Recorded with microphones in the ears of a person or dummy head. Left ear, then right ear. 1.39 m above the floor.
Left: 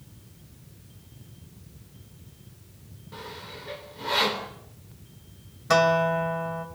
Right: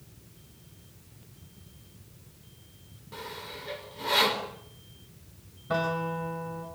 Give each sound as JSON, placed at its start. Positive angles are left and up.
{"t": 3.1, "sound": "sawing", "side_deg": -10, "distance_m": 4.5}
{"t": 5.7, "sound": "a guitar", "side_deg": 65, "distance_m": 3.5}